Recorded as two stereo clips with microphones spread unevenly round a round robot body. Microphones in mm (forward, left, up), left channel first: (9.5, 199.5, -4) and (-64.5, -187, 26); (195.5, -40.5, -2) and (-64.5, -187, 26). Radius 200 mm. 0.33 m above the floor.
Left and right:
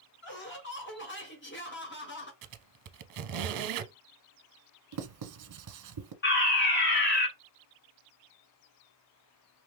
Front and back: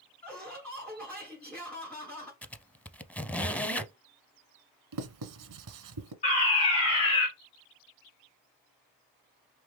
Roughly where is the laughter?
Left.